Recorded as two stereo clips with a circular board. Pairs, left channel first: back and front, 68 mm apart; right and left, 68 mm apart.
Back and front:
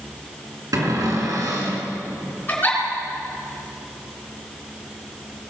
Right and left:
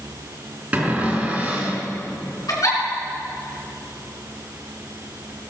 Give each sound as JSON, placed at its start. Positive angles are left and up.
{"t": 0.7, "sound": "a cupboard door", "azimuth_deg": 25, "distance_m": 3.5}
{"t": 2.5, "sound": "a giggle", "azimuth_deg": -120, "distance_m": 3.5}